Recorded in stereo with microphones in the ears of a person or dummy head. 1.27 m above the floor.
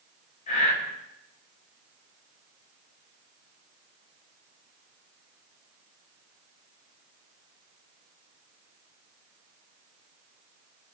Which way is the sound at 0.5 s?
45° left (ahead or behind).